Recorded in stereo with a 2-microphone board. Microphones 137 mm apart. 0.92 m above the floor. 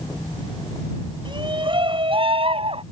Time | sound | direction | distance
1.2 | a shout | 35° right (ahead or behind) | ?